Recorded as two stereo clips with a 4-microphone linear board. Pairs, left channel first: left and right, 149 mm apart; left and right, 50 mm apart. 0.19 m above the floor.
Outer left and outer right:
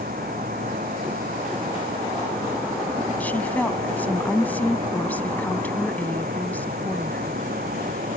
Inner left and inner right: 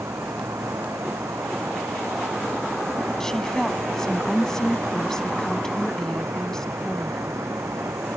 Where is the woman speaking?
10° left (ahead or behind).